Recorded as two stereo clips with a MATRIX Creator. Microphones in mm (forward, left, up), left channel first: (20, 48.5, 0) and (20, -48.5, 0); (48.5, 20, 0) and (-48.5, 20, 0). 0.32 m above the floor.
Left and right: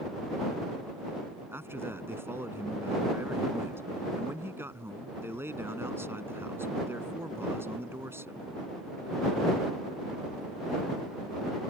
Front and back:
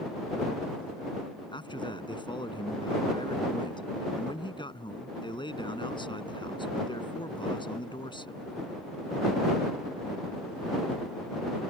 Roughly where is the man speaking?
Ahead right.